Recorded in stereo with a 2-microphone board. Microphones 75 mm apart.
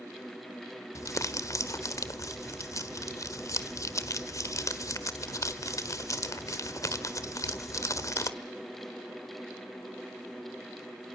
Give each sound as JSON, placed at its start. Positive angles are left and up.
{"t": 0.9, "sound": "crumpling", "side_deg": 50, "distance_m": 1.4}